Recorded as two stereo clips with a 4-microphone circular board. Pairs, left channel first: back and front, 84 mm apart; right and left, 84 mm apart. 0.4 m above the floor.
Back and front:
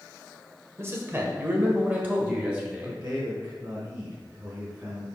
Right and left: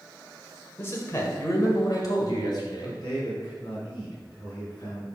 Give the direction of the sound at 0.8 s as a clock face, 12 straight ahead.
1 o'clock.